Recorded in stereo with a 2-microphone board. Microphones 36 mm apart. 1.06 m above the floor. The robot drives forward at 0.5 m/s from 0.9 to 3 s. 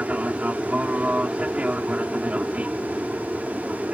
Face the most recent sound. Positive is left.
turn(degrees=-40)  # may be behind; listen again after turning